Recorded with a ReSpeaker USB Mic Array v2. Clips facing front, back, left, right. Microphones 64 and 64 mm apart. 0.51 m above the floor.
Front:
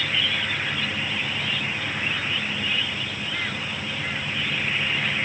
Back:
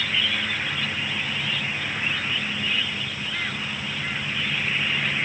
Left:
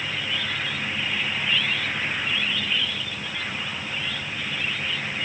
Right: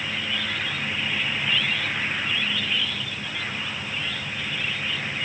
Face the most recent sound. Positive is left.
No sound to turn to.